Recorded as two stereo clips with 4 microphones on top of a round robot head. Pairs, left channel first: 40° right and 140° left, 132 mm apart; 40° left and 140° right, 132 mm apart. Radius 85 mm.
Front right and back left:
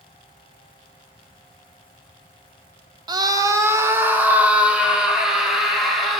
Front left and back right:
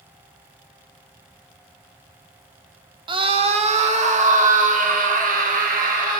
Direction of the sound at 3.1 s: 175° right.